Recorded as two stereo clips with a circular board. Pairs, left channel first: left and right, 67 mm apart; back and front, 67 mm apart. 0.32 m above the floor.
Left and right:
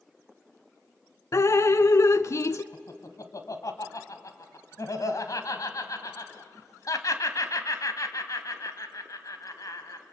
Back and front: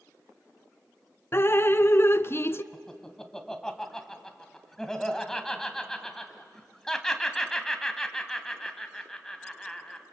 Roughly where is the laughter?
Left.